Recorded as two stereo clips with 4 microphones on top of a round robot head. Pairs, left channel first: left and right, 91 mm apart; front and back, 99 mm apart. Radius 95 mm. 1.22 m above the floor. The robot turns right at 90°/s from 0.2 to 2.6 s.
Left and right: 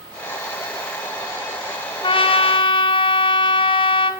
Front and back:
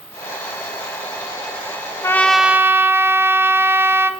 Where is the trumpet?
65° left, 0.9 m; by 4.1 s 115° left, 0.9 m.